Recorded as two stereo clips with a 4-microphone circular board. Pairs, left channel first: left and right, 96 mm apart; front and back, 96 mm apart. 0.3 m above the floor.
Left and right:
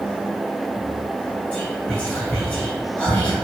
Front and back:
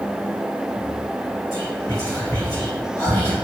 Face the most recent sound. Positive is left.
turn(degrees=20)